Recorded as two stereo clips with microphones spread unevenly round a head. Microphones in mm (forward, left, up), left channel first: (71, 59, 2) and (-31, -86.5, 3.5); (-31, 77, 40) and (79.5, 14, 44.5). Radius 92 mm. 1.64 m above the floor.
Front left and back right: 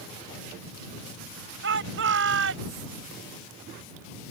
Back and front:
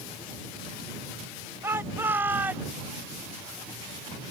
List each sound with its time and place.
1.6 s a shout: 105° right; by 2.9 s 110° right